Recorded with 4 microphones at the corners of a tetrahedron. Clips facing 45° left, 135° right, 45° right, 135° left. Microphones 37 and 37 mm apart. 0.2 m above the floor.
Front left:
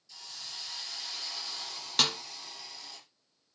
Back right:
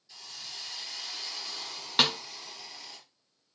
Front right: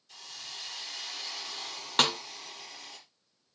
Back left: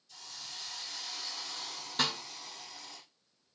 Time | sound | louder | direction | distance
0.1 | a hiss | back right 1 dB, front right 2 dB | 60° right | 4.5 m
2.0 | a snare drum | back right 3 dB, front right 6 dB | 65° right | 0.9 m